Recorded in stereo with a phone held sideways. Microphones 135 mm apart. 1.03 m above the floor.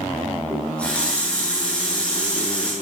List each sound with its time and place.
0.5 s a running tap: 10° left (ahead or behind), 10 m